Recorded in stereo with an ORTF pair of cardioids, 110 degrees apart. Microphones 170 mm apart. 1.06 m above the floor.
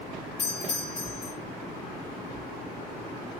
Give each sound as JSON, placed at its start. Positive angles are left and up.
{"t": 0.4, "sound": "a doorbell", "azimuth_deg": 55, "distance_m": 5.0}